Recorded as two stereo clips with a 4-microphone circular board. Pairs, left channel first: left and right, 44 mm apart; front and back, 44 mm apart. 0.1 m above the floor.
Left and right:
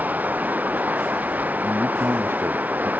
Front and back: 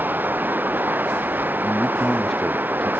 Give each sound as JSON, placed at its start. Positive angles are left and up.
{"t": 0.0, "sound": "running water", "azimuth_deg": -140}
{"t": 1.6, "sound": "a man speaking", "azimuth_deg": -80}